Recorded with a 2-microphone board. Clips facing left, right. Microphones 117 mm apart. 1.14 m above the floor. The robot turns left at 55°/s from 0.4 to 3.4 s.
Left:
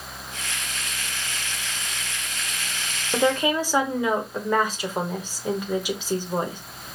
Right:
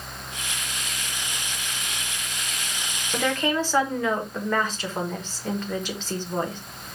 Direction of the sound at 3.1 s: 25° left (ahead or behind).